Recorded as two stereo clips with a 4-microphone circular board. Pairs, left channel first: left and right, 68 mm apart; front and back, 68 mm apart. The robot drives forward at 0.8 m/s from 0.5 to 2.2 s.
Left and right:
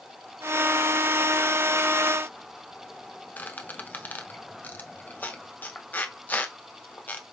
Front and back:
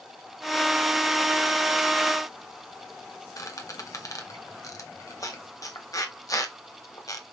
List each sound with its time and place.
3.4 s a squeak: 30° left, 0.7 m